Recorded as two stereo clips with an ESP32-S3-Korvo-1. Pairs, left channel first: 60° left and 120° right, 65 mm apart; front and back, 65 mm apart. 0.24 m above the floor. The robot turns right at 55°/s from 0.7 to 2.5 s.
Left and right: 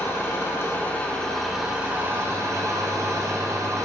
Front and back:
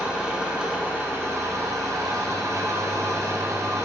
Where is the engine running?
110° left, 1.7 m; by 3.9 s 155° right, 1.7 m.